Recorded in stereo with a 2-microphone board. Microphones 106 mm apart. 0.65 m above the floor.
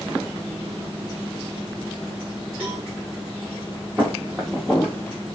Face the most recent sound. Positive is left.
turn(degrees=20)  # may be behind; listen again after turning